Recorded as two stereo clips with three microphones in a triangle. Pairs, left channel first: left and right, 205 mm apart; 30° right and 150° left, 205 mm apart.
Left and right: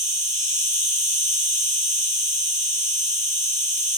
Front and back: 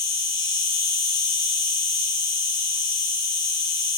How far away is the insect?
About 1.7 m.